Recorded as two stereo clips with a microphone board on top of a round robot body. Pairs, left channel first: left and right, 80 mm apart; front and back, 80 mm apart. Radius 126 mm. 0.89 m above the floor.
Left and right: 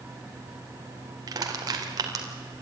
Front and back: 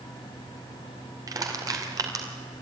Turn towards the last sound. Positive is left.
turn(degrees=-135)